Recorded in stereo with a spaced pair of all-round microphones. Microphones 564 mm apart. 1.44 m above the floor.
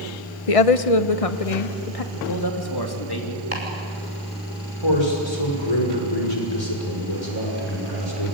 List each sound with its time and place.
0.5 s a woman speaking: 70° left (ahead or behind), 0.8 m; by 2.0 s 80° left, 2 m
2.1 s a man speaking: 40° left (ahead or behind), 2.5 m
3.5 s chopping: 85° right, 6 m
4.8 s a man speaking: 50° left (ahead or behind), 6 m